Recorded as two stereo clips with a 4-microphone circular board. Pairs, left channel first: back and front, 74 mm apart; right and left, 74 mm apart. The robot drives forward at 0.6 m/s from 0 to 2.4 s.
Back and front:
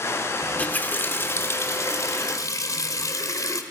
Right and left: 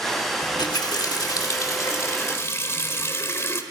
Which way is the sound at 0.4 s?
110° right.